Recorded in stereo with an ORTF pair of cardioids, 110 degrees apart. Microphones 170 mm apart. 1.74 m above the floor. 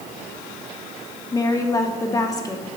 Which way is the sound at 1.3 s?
20° left.